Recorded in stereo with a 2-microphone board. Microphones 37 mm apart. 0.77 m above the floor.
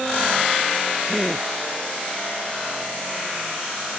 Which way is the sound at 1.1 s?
10° right (ahead or behind).